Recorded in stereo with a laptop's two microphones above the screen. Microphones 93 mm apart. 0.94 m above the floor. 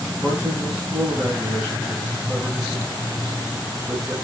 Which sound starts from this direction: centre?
A man speaking, at 0.2 s.